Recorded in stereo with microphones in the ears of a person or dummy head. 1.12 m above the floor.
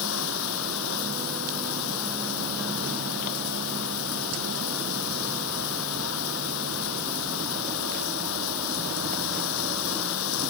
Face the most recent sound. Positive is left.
turn(degrees=80)